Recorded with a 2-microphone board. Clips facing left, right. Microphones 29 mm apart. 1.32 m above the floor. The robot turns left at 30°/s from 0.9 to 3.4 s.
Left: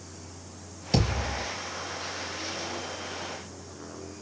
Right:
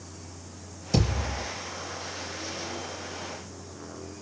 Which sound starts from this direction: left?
A thud, at 0.9 s.